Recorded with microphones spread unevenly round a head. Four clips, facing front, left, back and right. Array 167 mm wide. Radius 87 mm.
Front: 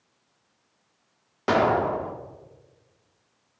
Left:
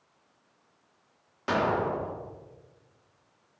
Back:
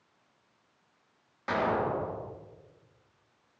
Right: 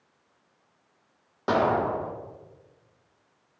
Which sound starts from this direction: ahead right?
An explosion, at 1.5 s.